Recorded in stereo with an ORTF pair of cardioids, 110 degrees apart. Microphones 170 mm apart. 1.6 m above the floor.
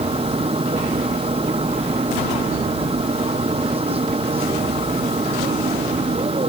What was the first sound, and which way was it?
A machine running, 35° right.